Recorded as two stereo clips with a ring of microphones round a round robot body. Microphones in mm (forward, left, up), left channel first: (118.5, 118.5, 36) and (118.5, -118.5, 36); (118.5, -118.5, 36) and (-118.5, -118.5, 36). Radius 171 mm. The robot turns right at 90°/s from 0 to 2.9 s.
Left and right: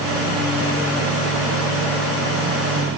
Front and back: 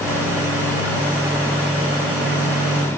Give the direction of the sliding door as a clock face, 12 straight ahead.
No sliding door in this recording.